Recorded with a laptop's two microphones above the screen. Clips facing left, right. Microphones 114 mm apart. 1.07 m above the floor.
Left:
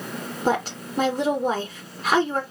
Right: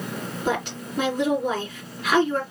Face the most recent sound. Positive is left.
turn(degrees=35)  # may be behind; listen again after turning